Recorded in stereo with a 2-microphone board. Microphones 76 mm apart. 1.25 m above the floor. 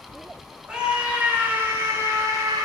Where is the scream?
10° right (ahead or behind), 2.5 m; by 2.6 s 45° right (ahead or behind), 2.5 m.